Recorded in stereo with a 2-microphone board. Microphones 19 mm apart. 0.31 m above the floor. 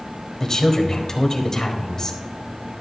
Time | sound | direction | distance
0.4 | a woman speaking | 30° left (ahead or behind) | 1.3 m